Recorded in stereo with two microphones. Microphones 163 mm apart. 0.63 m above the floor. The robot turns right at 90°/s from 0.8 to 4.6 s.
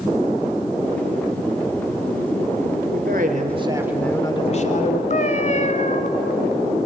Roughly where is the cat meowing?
Left.